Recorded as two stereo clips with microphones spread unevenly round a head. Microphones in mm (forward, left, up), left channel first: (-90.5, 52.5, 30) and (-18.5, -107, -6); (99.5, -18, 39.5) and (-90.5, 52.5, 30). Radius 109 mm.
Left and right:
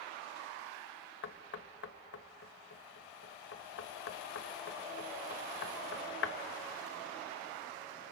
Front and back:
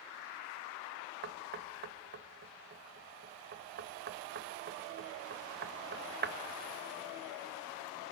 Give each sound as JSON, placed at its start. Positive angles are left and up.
{"t": 1.2, "sound": "knocking", "azimuth_deg": 125, "distance_m": 1.2}